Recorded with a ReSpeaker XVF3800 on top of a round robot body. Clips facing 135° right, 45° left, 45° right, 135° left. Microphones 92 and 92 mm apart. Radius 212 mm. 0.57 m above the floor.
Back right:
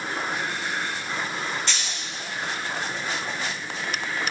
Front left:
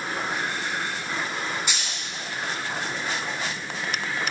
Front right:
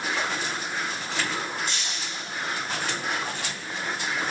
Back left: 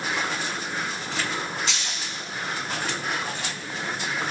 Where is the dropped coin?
125° left, 1.9 m.